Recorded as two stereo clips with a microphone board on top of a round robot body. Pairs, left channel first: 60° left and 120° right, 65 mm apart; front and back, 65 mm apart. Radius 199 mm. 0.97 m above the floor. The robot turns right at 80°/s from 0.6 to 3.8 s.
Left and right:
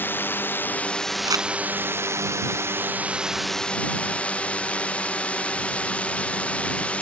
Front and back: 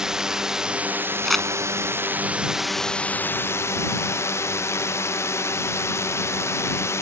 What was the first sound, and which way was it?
A drone, 105° left.